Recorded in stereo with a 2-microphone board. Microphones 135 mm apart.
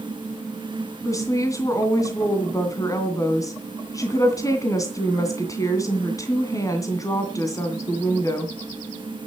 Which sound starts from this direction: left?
A woman speaking, at 1.1 s.